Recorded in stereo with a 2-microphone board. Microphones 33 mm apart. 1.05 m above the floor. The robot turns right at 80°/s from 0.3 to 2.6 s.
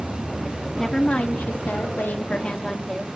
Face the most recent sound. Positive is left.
turn(degrees=155)